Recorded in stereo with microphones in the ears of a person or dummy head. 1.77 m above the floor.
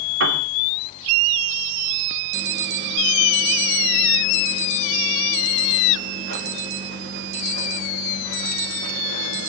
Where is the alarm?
75° right (ahead or behind), 3 m.